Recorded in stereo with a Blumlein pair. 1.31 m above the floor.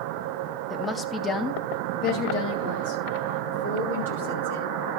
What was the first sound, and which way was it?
A woman speaking, 5° left.